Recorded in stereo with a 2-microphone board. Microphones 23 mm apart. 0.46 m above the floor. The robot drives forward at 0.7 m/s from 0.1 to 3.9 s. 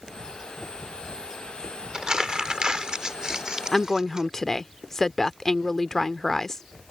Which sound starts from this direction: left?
A woman speaking, at 3.7 s.